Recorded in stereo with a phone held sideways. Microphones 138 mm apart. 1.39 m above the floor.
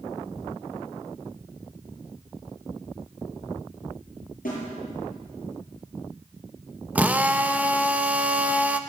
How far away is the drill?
About 0.7 m.